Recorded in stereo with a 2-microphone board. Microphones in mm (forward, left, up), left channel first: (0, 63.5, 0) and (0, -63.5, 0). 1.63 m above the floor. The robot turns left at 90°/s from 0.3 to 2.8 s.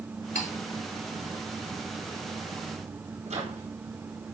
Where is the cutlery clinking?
70° left (ahead or behind), 3 m; by 0.5 s 75° left (ahead or behind), 3 m.